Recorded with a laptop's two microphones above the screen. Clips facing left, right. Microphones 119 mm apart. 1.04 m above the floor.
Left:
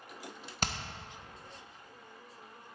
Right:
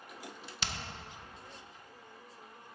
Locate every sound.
0.6 s hammering: 45° left (ahead or behind), 0.6 m